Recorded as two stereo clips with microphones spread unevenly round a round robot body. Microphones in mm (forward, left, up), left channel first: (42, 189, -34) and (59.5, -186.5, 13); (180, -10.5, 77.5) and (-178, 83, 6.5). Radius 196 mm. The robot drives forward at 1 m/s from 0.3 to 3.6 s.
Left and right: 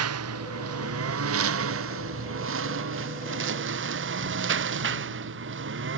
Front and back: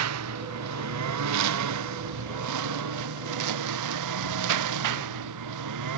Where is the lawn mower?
145° right; by 6.0 s 150° right.